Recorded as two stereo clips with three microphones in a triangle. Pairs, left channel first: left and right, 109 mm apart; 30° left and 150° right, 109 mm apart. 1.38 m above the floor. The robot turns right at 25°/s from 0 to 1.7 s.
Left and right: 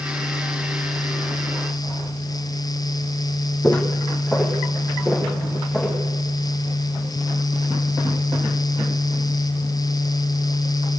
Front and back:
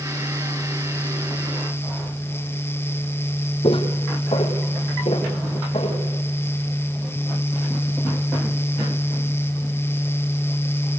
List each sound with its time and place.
3.6 s footsteps: 15° left, 2.5 m; by 6.0 s 5° left, 6 m